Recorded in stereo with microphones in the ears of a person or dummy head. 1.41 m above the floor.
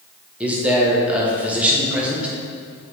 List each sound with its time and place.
0.4 s a man speaking: 5° right (ahead or behind), 1.4 m